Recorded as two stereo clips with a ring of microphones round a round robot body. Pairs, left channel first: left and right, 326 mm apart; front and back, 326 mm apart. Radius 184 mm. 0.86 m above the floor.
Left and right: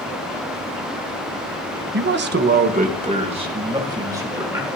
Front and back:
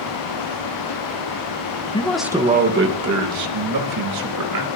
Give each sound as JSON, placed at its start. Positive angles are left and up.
{"t": 1.9, "sound": "a man speaking", "azimuth_deg": -65, "distance_m": 1.1}